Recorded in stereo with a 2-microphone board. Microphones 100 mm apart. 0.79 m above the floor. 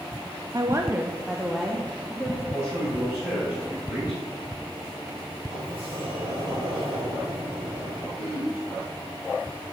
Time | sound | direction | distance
0.5 | a woman speaking | 35° right (ahead or behind) | 0.6 m
2.5 | a man speaking | 20° right (ahead or behind) | 4.5 m
5.5 | a sliding door | 75° right (ahead or behind) | 3 m
8.2 | throat clearing | 15° right (ahead or behind) | 4.5 m